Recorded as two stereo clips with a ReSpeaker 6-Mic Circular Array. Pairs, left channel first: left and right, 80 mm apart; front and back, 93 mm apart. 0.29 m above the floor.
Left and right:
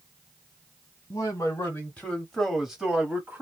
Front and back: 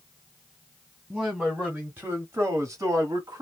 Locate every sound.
1.1 s a man speaking: 95° left, 1.1 m; by 3.4 s 145° right, 1.3 m